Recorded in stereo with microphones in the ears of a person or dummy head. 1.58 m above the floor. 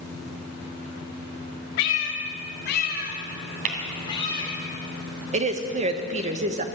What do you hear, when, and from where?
1.8 s a cat meowing: 60° left (ahead or behind), 1.8 m; by 4.5 s 20° left (ahead or behind), 3 m
3.6 s tapping: 50° right (ahead or behind), 2.5 m
5.3 s a woman speaking: 40° right (ahead or behind), 1.2 m